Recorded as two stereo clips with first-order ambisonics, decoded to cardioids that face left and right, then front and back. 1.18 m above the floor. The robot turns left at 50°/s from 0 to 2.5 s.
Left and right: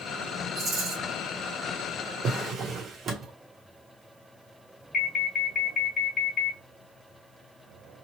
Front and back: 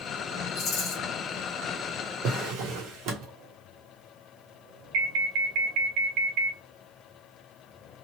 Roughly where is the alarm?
Behind left.